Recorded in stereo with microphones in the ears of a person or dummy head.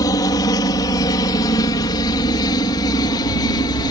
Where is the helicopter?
20° left (ahead or behind); by 3.9 s 25° left (ahead or behind).